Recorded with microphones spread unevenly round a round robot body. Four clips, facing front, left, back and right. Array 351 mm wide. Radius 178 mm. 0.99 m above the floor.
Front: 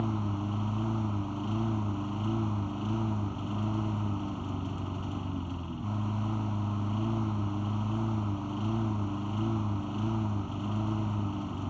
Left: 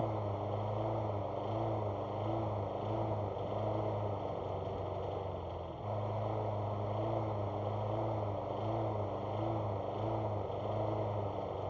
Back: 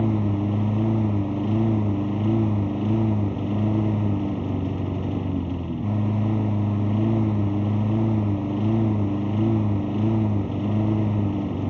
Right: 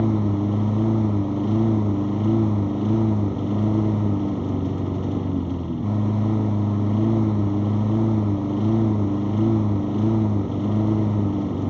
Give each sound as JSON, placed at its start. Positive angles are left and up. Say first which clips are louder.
{"t": 0.0, "sound": "a lawn mower", "louder": "right 15 dB, back 9 dB", "azimuth_deg": -130}